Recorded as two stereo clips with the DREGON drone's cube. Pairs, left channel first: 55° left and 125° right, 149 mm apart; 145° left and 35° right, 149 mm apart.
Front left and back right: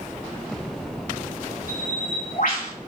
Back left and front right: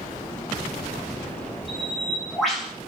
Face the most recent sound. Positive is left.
turn(degrees=55)